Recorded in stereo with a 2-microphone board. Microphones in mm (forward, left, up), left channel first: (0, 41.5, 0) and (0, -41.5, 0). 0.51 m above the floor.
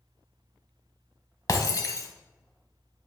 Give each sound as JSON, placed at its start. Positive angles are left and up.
{"t": 1.5, "sound": "breaking glass", "side_deg": 45, "distance_m": 1.0}